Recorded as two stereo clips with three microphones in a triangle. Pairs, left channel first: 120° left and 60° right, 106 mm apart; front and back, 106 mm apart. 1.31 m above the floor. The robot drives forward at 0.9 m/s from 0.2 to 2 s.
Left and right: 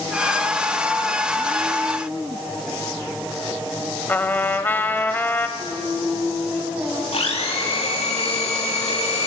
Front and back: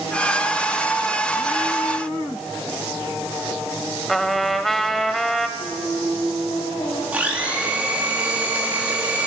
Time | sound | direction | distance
4.1 | a trumpet | 85° left | 1.1 m
5.6 | singing | straight ahead | 7.5 m
7.1 | a blender | 105° left | 3.5 m